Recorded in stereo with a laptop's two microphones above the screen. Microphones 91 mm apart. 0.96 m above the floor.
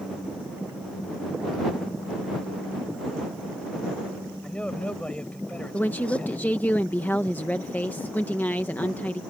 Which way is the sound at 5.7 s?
20° left (ahead or behind).